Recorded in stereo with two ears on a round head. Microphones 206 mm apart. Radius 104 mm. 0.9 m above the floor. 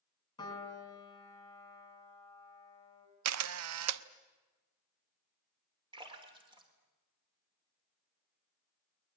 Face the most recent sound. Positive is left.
turn(degrees=-20)  # may be behind; listen again after turning